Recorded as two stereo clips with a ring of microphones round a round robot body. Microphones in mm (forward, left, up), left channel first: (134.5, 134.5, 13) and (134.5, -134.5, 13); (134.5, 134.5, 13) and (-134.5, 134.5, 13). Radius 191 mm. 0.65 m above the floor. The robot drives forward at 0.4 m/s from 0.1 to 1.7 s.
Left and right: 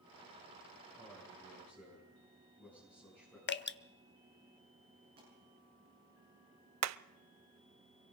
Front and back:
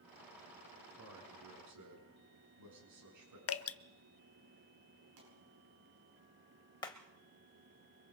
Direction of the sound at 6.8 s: 80° right.